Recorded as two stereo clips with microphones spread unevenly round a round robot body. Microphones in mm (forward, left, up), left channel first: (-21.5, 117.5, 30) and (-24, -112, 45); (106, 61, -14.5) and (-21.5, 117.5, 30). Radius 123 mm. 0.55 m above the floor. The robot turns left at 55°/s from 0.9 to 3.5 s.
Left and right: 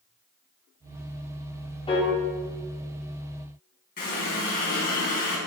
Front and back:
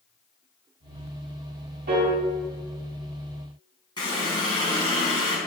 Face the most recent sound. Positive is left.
turn(degrees=35)